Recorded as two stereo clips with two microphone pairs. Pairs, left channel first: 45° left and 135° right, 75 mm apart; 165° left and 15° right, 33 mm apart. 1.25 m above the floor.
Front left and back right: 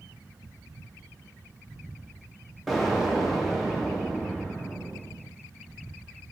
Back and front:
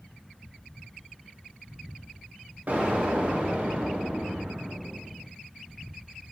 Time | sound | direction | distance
2.7 | an explosion | 45° right | 0.6 m